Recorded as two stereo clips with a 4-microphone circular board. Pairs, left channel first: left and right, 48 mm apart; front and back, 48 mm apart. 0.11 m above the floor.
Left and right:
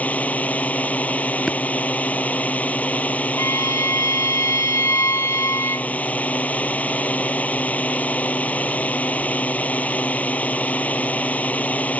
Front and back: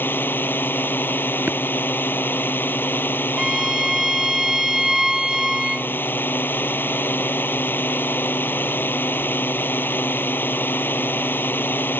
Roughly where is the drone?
Ahead left.